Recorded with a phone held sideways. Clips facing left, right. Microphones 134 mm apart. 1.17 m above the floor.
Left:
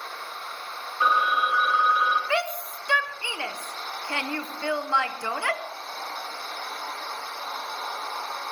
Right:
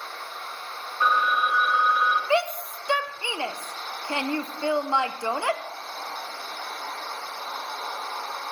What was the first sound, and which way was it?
A phone ringing, 10° left (ahead or behind).